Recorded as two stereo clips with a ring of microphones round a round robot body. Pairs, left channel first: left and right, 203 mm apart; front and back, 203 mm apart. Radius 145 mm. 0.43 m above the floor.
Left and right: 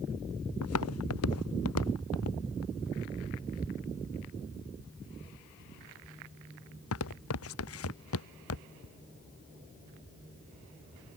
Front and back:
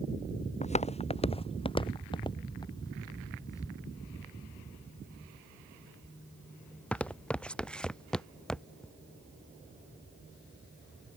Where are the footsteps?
55° left; by 8.9 s 85° left.